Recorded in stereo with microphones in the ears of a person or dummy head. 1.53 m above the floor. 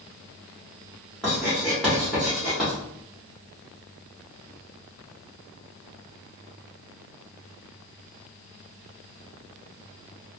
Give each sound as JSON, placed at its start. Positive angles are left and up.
{"t": 1.2, "sound": "writing", "side_deg": 0, "distance_m": 1.1}